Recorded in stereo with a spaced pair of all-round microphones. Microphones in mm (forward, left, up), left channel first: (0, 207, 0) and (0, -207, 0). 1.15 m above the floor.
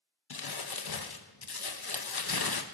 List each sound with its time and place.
0.3 s crumpling: 60° left (ahead or behind), 0.8 m